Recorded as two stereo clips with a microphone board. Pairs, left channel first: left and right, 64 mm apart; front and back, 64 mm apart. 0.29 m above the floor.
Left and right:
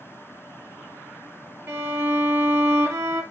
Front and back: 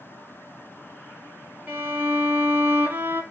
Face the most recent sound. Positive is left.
turn(degrees=-130)